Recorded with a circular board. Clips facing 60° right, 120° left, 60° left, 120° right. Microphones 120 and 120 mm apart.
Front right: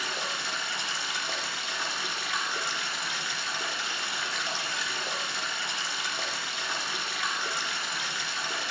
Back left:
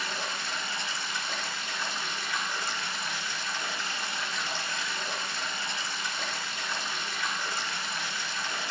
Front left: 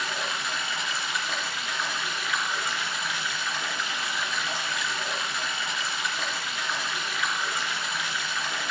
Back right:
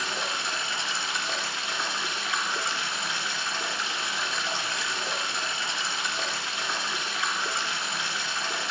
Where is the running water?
60° right, 1.9 m.